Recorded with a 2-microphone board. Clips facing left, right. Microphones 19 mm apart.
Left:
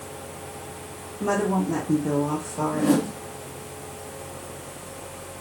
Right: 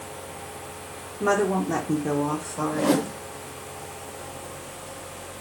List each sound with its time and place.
1.2 s a woman speaking: 45° right (ahead or behind), 0.7 m; by 3.1 s 5° left (ahead or behind), 0.8 m
2.7 s a whoosh: 60° right (ahead or behind), 0.6 m